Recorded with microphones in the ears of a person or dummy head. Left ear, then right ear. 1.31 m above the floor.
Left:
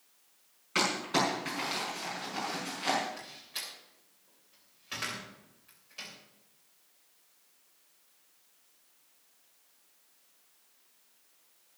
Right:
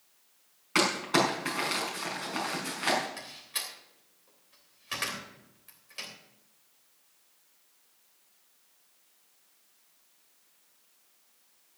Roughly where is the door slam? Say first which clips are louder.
Right 3 dB; right.